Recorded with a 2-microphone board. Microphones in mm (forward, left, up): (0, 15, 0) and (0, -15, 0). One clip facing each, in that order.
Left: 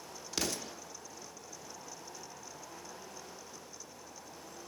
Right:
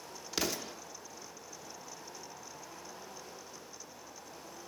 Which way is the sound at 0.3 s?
10° right (ahead or behind).